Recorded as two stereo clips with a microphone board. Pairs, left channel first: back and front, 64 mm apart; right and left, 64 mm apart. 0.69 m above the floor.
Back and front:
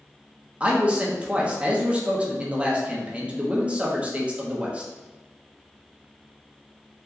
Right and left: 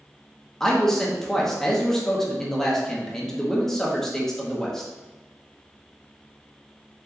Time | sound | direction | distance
0.6 | a man speaking | 20° right | 0.9 m